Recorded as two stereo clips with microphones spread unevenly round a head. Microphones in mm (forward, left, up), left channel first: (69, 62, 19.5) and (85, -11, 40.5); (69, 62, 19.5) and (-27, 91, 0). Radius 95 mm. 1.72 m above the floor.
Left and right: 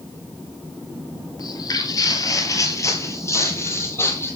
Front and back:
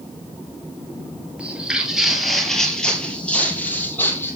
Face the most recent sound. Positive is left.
turn(degrees=40)